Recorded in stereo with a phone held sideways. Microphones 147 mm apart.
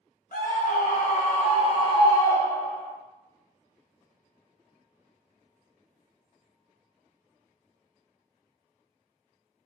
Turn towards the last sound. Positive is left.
turn(degrees=5)  # may be behind; listen again after turning